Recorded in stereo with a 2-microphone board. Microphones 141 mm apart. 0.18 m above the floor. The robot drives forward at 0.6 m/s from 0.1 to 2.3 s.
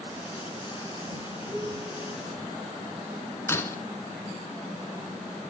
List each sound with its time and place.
1.5 s a piano: 25° right (ahead or behind), 2 m; by 2.1 s 20° right (ahead or behind), 2.5 m
3.5 s breaking glass: 20° left (ahead or behind), 0.9 m